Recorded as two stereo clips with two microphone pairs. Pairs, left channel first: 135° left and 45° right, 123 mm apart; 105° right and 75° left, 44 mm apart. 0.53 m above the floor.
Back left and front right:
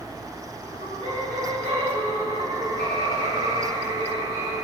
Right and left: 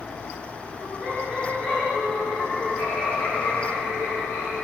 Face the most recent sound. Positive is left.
turn(degrees=-95)